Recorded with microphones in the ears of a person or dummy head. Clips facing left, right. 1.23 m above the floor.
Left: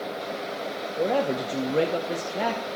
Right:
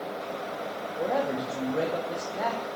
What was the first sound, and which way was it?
A man speaking, 40° left (ahead or behind).